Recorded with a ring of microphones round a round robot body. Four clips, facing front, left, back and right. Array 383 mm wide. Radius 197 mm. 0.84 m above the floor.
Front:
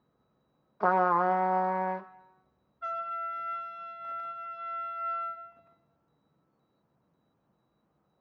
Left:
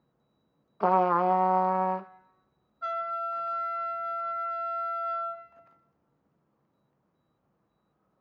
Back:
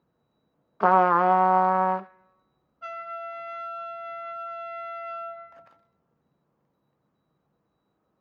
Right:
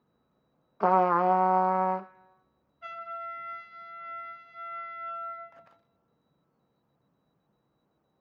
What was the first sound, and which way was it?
A trumpet, 175° right.